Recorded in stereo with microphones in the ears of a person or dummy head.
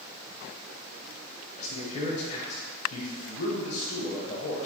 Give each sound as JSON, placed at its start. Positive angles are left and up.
{"t": 1.6, "sound": "a man speaking", "side_deg": 40, "distance_m": 1.0}